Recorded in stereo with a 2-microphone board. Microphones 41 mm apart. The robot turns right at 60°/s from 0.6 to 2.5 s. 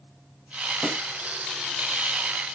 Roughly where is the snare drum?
Centre.